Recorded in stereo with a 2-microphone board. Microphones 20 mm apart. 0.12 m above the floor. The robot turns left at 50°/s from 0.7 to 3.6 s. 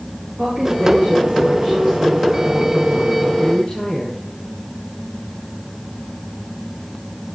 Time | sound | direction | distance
0.4 | a woman speaking | 65° right | 8.5 m